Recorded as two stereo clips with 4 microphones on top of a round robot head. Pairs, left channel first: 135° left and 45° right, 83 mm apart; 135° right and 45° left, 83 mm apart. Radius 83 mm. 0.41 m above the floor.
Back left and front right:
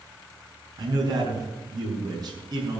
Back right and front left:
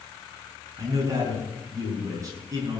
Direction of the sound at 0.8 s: 5° right.